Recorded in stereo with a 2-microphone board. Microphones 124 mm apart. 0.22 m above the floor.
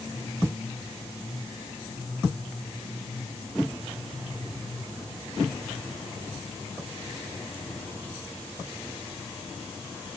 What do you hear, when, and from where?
Only background noise.